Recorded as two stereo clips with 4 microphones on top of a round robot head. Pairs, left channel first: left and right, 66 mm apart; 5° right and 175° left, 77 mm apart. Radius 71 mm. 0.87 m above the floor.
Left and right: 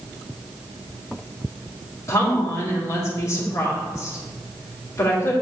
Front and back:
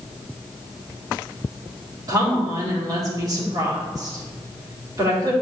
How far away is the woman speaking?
About 2.5 m.